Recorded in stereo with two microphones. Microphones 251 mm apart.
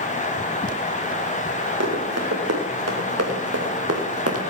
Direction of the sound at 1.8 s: 85° right.